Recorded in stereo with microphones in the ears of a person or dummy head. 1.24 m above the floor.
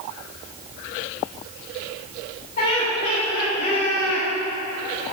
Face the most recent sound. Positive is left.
turn(degrees=55)  # may be behind; listen again after turning